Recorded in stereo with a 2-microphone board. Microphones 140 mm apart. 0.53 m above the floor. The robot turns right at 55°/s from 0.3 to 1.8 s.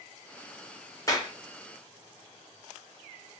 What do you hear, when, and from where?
1.1 s a clap: 25° left (ahead or behind), 1.1 m; by 1.3 s 35° left (ahead or behind), 1.1 m